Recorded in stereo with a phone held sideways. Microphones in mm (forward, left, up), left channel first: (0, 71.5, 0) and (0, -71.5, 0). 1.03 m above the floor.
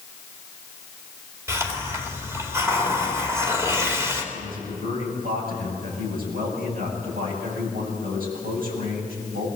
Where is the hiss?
20° right (ahead or behind), 2.5 m.